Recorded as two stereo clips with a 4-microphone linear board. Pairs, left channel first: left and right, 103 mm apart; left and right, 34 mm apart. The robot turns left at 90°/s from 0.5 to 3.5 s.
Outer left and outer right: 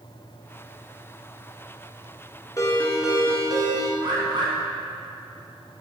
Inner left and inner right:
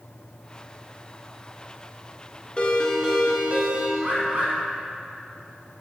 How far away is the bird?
About 2 m.